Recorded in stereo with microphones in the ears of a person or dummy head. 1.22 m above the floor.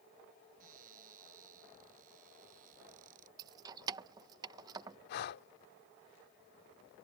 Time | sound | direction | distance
0.6 | a cupboard door | 50° right (ahead or behind) | ?
3.4 | keys jangling | 25° right (ahead or behind) | ?
5.1 | breathing | 60° left (ahead or behind) | ?